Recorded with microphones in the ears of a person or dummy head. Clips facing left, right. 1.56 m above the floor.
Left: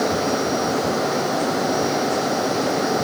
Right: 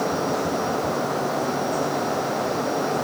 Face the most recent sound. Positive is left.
No sound to turn to.